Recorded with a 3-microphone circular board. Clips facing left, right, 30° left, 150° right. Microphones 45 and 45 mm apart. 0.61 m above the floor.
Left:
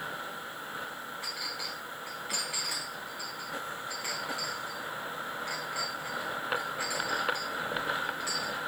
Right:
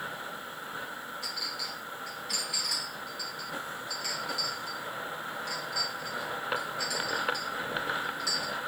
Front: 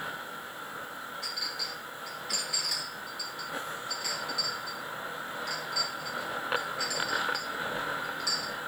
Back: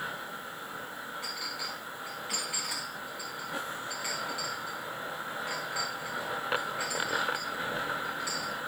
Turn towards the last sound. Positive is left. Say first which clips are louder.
# even, front 1 dB
turn(degrees=145)